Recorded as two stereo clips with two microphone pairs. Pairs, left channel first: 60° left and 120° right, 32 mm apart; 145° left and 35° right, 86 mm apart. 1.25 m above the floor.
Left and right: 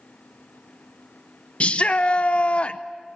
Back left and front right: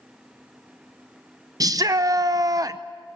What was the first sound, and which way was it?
A shout, 10° left.